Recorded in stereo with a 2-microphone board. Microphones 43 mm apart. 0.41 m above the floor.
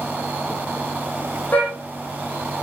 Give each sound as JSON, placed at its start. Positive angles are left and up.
{"t": 1.5, "sound": "a car horn", "side_deg": 35, "distance_m": 8.5}